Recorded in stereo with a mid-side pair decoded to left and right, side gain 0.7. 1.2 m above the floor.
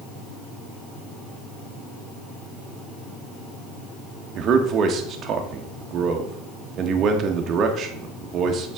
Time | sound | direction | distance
4.3 | a man speaking | 40° right | 1.6 m